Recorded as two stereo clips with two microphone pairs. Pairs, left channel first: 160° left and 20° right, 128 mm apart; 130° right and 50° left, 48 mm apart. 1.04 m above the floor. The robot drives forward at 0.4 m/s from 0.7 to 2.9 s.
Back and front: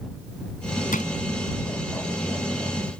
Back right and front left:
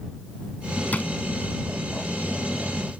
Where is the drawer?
175° left.